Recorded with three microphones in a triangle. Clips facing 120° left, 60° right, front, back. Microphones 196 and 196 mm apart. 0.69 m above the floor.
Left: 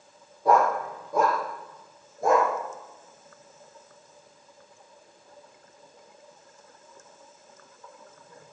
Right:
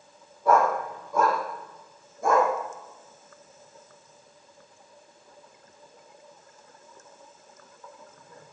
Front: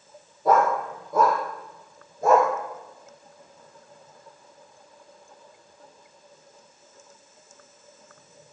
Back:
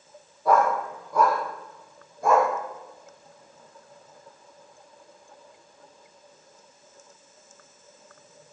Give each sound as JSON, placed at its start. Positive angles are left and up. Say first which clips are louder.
{"t": 0.5, "sound": "a dog barking", "louder": "even, front 1 dB", "azimuth_deg": 65, "distance_m": 7.5}